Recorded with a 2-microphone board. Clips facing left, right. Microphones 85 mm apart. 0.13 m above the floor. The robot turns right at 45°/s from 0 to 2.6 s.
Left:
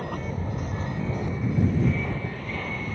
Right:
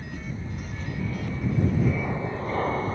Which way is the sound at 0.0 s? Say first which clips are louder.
Left 5 dB; 105° left.